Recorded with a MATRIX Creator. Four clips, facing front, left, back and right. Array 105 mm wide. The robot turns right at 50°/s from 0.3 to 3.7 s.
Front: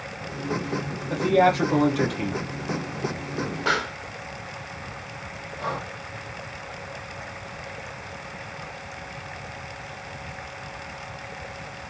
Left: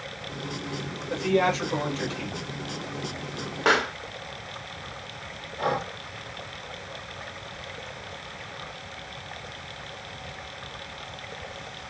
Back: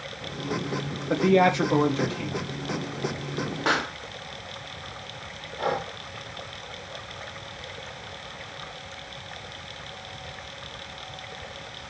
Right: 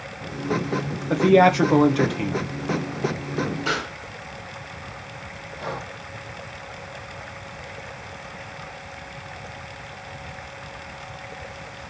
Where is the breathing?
130° left, 2.5 m.